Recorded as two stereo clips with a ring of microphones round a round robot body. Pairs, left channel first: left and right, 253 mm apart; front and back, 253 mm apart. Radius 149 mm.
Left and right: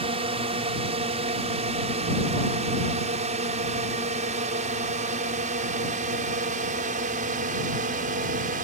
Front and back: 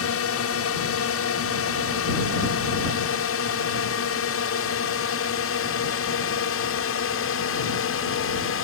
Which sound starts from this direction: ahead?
A drone, at 0.0 s.